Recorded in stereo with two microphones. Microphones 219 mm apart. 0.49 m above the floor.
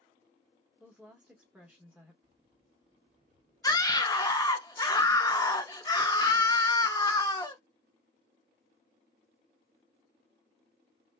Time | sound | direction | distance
0.8 | a woman speaking | 5° right (ahead or behind) | 0.9 m
2.2 | keys jangling | 15° right (ahead or behind) | 1.6 m
3.6 | a scream | 15° left (ahead or behind) | 0.6 m